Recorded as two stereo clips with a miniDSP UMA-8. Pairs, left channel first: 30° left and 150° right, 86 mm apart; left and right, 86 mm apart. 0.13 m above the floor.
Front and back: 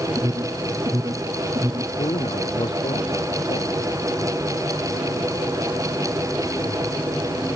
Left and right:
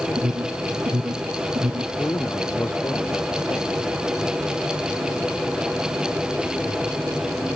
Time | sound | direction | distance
0.2 | an alarm | 125° right | ?
2.0 | a man speaking | 30° left | ?